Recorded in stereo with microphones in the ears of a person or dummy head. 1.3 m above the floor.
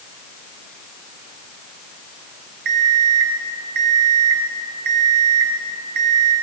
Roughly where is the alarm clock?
Right.